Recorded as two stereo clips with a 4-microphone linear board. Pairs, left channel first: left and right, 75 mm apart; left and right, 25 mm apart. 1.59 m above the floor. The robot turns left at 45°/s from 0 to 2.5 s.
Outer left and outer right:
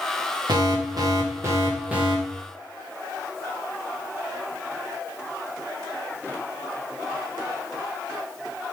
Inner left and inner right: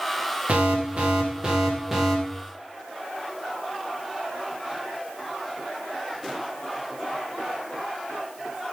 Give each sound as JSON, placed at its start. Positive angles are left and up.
{"t": 0.5, "sound": "an alarm", "azimuth_deg": -95, "distance_m": 3.0}